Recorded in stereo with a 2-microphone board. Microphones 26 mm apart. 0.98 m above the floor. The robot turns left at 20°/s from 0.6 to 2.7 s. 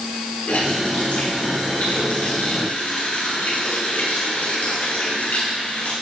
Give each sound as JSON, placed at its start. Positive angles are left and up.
{"t": 0.5, "sound": "a running tap", "azimuth_deg": 125, "distance_m": 7.5}